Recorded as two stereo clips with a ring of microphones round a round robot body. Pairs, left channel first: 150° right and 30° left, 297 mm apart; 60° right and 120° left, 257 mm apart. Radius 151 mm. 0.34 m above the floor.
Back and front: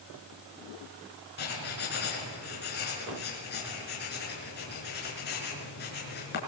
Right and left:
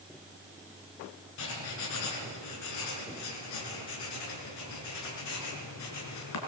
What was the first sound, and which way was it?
Writing, 90° right.